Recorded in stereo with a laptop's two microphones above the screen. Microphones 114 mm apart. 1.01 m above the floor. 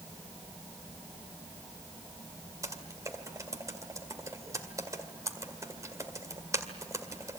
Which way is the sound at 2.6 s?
30° right (ahead or behind).